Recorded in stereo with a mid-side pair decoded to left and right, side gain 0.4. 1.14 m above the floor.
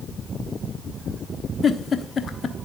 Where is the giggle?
50° left, 1.2 m.